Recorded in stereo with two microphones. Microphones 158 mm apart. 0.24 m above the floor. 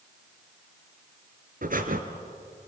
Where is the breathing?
60° right (ahead or behind), 1.9 m.